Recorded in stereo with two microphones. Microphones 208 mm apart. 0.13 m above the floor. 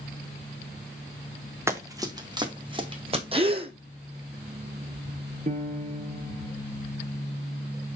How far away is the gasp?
About 1.0 m.